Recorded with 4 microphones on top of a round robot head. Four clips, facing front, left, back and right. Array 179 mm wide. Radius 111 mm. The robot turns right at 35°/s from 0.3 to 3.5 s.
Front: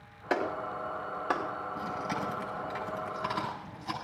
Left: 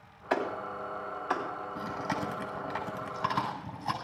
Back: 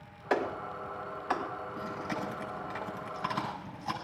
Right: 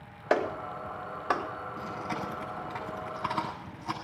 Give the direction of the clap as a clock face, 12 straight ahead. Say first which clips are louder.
Right 3 dB, even; 3 o'clock.